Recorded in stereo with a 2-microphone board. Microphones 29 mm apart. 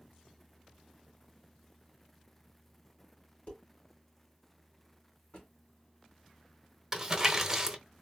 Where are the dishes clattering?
55° left (ahead or behind), 2.5 m.